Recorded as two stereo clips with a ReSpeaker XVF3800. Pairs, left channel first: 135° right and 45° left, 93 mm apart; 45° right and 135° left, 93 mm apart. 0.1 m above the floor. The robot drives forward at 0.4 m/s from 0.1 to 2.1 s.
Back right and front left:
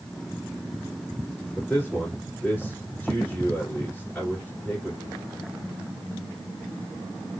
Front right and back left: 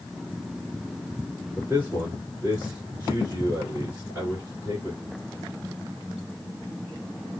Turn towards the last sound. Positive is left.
turn(degrees=170)